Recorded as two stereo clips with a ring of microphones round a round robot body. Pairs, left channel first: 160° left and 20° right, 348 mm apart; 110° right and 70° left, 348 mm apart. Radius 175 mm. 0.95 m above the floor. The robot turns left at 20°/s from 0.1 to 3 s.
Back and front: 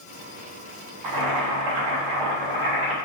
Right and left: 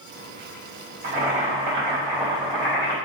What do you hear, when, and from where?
1.0 s boiling: 5° left, 3.5 m; by 3.0 s 35° right, 3.5 m